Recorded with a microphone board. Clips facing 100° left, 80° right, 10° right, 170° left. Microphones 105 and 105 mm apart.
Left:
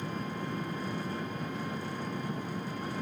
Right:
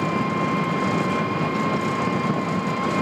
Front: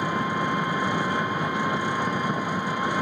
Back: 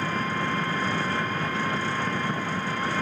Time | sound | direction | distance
0.0 | an engine running | 85° right | ?